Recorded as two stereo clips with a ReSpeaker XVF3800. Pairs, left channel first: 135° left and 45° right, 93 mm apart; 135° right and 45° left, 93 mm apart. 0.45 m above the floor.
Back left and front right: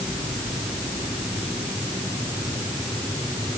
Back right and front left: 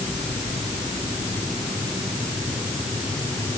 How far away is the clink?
No clink in this recording.